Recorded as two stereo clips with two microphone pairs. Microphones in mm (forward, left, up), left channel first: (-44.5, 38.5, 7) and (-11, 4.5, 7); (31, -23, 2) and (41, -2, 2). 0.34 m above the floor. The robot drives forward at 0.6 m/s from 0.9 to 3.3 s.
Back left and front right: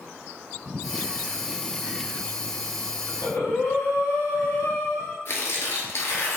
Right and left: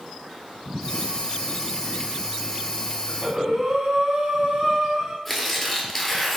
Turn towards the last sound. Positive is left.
turn(degrees=165)